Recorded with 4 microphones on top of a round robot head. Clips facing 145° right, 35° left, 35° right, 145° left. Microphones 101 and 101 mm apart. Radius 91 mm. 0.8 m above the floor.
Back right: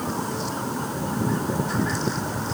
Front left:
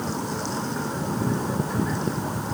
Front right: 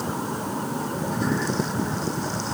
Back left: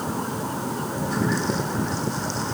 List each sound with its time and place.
Only background noise.